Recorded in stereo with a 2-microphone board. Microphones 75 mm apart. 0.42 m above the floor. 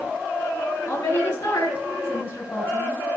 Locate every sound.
0.9 s a woman speaking: 35° left (ahead or behind), 4.5 m